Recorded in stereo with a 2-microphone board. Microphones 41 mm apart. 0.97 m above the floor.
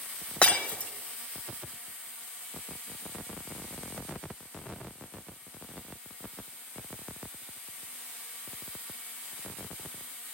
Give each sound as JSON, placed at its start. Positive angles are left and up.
{"t": 0.4, "sound": "breaking glass", "side_deg": 30, "distance_m": 1.3}